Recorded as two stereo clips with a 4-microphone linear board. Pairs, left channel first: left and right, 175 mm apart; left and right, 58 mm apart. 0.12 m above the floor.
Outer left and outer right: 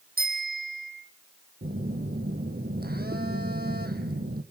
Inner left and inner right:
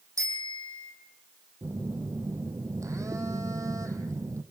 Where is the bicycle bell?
55° right (ahead or behind), 4 m.